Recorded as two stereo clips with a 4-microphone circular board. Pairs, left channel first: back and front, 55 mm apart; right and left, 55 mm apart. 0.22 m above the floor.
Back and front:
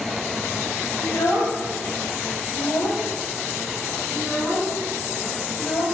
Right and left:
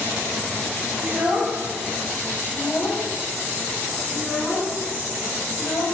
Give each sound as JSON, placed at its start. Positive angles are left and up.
{"t": 1.0, "sound": "a child speaking", "azimuth_deg": 150, "distance_m": 2.5}